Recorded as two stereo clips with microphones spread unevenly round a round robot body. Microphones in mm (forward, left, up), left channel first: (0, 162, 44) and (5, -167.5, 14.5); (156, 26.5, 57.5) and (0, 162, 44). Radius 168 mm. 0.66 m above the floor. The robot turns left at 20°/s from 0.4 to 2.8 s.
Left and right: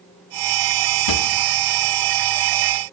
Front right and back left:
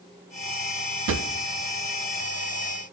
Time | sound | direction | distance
1.1 | a drawer | 120° left | 0.6 m